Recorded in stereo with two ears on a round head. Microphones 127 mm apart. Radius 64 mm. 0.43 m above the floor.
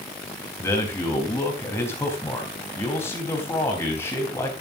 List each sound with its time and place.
0.6 s a man speaking: 15° left (ahead or behind), 3.5 m